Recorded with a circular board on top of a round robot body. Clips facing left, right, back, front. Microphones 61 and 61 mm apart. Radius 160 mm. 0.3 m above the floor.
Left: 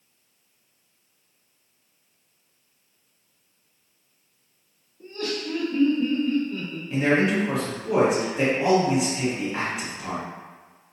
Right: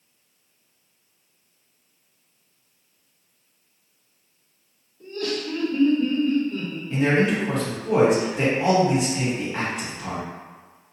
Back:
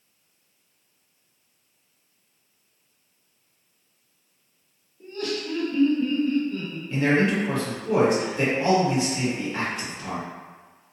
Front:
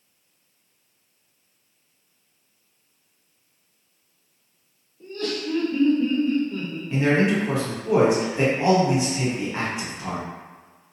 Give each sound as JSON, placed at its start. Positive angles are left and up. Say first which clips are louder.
{"t": 5.0, "sound": "laughter", "louder": "right 2 dB, front 1 dB", "azimuth_deg": 120, "distance_m": 1.7}
{"t": 6.9, "sound": "a man speaking", "louder": "even, front 1 dB", "azimuth_deg": 10, "distance_m": 1.5}